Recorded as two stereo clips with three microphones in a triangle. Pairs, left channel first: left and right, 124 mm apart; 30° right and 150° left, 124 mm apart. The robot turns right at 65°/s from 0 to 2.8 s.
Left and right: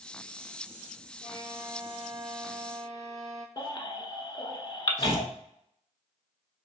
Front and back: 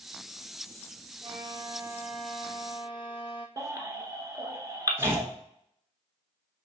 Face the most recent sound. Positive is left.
turn(degrees=-140)